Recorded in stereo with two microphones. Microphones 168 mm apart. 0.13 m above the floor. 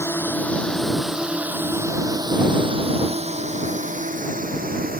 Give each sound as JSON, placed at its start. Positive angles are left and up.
{"t": 0.0, "sound": "a drone", "side_deg": 15}